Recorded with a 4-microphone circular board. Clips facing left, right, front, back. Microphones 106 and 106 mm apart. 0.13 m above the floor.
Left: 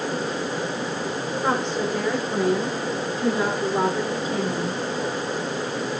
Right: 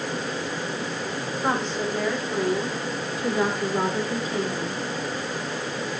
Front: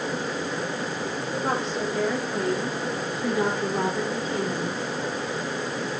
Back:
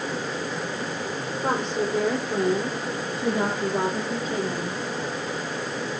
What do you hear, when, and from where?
1.4 s a woman speaking: 160° left, 6.5 m; by 4.8 s 145° left, 7 m